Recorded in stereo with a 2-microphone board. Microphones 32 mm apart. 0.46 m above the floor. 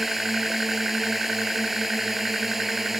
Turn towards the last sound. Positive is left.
turn(degrees=-10)  # may be behind; listen again after turning